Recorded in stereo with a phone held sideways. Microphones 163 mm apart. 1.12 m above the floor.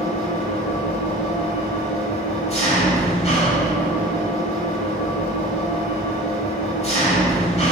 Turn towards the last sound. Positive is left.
turn(degrees=40)  # may be behind; listen again after turning